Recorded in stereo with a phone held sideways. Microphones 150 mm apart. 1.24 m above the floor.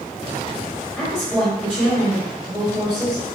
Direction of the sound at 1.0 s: 5° left (ahead or behind).